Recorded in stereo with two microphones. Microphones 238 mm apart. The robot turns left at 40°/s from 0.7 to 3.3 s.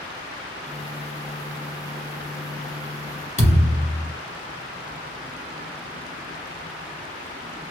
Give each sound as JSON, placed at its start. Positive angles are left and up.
{"t": 3.4, "sound": "a thud", "side_deg": 30, "distance_m": 1.6}